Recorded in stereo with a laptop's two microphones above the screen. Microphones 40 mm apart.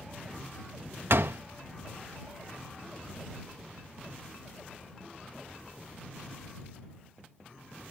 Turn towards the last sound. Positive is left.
turn(degrees=-70)  # may be behind; listen again after turning